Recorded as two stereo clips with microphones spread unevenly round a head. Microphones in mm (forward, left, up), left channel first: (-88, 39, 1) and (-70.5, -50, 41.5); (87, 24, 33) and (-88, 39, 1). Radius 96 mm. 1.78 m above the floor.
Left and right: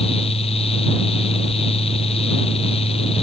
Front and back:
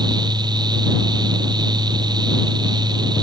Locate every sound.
0.0 s a fan: 110° left